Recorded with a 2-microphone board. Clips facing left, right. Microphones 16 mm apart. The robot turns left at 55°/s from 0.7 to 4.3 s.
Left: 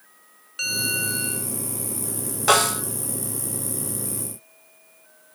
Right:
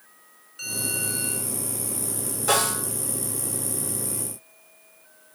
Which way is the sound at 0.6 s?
40° left.